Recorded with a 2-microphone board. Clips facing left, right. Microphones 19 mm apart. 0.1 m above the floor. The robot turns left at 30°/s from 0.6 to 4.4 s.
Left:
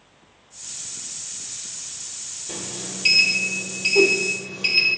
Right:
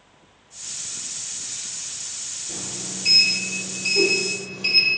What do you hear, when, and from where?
2.5 s a sliding door: 85° left, 2.5 m; by 5.0 s 30° left, 2.5 m
4.0 s a whoosh: 65° left (ahead or behind), 1.0 m